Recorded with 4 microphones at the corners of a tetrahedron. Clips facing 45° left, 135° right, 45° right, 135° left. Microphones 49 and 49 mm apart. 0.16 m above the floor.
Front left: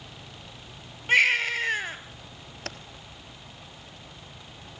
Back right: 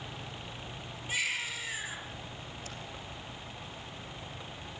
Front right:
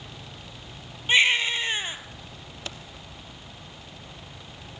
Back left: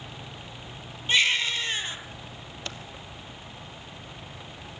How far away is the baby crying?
About 1.8 m.